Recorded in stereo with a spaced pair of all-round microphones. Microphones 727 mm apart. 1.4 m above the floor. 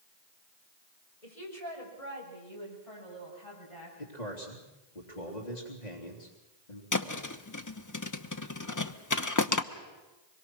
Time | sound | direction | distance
1.2 | a woman speaking | 60° left (ahead or behind) | 6 m
4.0 | a man speaking | 75° left (ahead or behind) | 3 m
6.9 | a thud | 25° left (ahead or behind) | 0.9 m